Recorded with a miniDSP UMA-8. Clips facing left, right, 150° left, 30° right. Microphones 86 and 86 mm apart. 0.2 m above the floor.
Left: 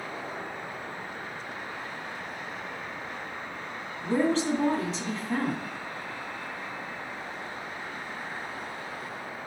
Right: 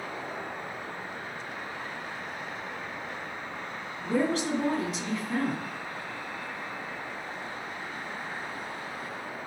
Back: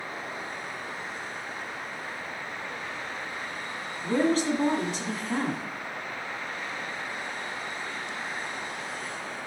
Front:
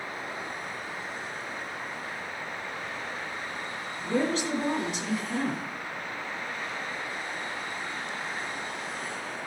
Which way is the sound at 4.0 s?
130° left.